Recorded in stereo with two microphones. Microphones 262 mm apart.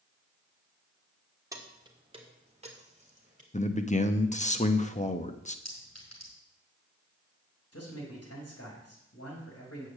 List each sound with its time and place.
1.5 s keys jangling: 15° right (ahead or behind), 1.5 m; by 3.4 s 30° right (ahead or behind), 2.5 m
3.5 s a man speaking: 25° left (ahead or behind), 0.8 m
5.7 s a clink: 75° left (ahead or behind), 5 m
7.7 s a man speaking: 65° left (ahead or behind), 4 m